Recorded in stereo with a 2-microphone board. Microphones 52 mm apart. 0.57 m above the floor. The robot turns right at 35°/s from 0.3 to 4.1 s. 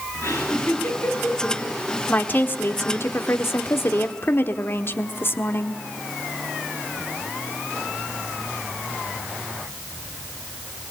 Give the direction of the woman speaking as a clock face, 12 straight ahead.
11 o'clock.